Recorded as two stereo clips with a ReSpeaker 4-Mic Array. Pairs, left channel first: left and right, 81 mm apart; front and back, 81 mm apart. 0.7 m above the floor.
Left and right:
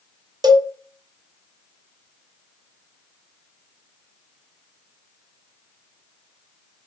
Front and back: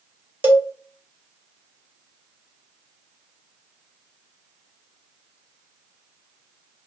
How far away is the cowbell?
About 0.5 m.